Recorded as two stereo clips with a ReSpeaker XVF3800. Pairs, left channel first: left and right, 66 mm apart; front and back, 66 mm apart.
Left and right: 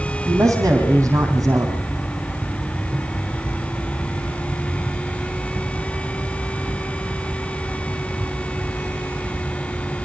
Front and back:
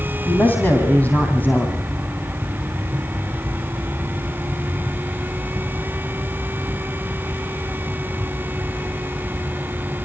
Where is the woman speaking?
60° right, 4 m.